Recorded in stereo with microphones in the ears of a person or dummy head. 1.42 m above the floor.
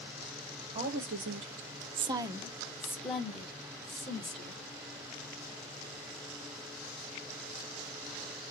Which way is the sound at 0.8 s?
35° right (ahead or behind).